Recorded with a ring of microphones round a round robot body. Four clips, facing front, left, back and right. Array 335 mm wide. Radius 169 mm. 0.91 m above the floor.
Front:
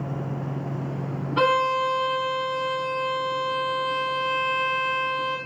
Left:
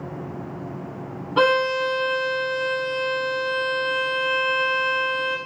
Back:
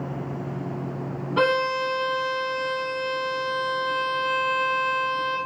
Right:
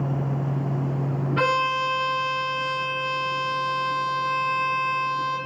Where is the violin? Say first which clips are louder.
Left 5 dB, front 1 dB; 90° left, 1.8 m.